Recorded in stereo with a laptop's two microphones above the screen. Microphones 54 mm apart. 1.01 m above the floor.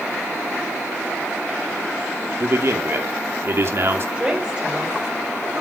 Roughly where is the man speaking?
Right.